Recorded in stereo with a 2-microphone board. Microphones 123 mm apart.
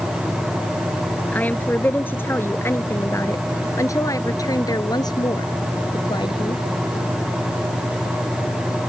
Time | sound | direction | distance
1.3 | a woman speaking | 15° left (ahead or behind) | ?